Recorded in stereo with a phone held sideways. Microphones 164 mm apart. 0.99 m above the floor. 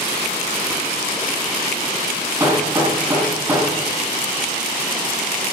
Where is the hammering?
15° right (ahead or behind), 4 m.